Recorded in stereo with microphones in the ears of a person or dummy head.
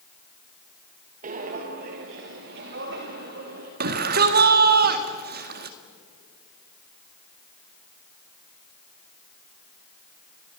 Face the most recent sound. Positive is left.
turn(degrees=-55)  # may be behind; listen again after turning